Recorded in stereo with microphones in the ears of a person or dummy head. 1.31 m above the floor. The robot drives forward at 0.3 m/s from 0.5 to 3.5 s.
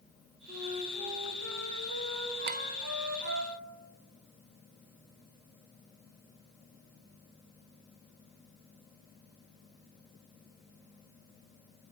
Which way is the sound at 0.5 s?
40° right (ahead or behind).